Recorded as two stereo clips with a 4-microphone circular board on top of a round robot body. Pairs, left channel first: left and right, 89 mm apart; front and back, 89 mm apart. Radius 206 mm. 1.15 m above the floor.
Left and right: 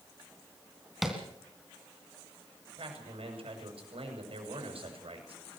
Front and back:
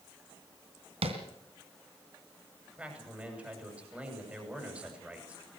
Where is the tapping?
Straight behind, 2.5 m.